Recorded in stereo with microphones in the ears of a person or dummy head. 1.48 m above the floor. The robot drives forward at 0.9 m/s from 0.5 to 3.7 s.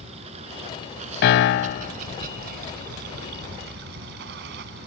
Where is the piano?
60° left (ahead or behind); by 1.9 s 35° left (ahead or behind).